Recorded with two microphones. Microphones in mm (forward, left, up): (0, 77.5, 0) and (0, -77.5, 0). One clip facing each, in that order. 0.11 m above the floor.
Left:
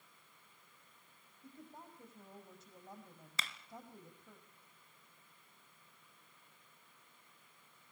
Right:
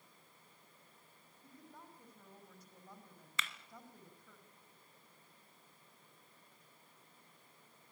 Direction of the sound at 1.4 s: 25° left (ahead or behind).